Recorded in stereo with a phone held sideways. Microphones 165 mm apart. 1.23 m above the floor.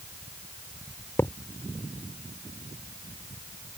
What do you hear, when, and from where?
1.2 s a thud: 15° left (ahead or behind)